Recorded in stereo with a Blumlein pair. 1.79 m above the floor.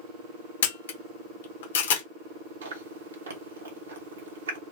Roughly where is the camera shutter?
Ahead left.